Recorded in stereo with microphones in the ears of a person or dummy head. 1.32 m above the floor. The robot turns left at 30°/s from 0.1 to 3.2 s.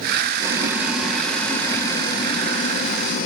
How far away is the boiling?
About 0.5 m.